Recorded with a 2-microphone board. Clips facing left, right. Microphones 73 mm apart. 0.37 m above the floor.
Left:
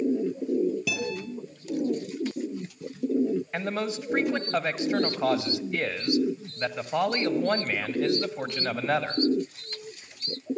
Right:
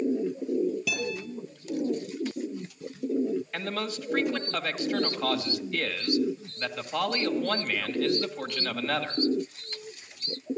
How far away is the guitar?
About 9 m.